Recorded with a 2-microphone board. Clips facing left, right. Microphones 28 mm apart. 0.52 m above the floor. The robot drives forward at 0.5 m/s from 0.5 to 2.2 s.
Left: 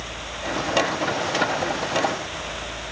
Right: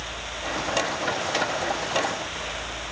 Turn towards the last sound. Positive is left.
No sound to turn to.